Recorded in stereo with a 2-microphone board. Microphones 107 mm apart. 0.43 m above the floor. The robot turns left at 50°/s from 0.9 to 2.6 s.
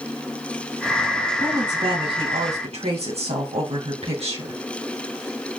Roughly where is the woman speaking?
Ahead right.